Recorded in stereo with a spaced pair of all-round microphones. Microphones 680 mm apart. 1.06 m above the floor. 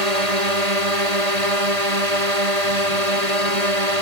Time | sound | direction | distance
0.0 | a drone | 65° right (ahead or behind) | ?